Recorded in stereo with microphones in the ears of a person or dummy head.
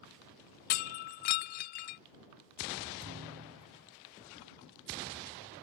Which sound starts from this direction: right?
A thud, at 3.0 s.